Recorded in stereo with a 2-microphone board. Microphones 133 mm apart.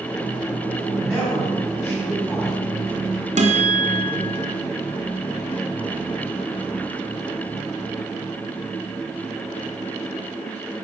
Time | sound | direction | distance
0.9 | a man speaking | centre (ahead or behind) | 5.5 m
3.4 | a guitar | 60° right (ahead or behind) | 1.9 m